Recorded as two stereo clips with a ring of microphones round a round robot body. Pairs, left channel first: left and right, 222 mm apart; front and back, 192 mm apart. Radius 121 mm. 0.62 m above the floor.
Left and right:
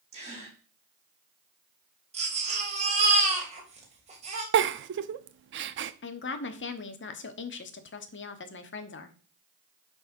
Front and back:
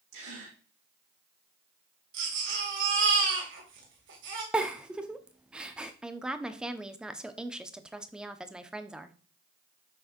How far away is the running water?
I don't hear running water.